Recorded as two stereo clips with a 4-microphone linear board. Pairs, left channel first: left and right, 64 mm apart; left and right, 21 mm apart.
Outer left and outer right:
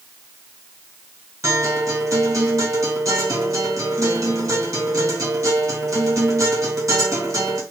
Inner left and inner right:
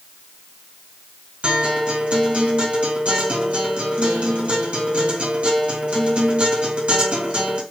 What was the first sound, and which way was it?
A guitar, 55° right (ahead or behind).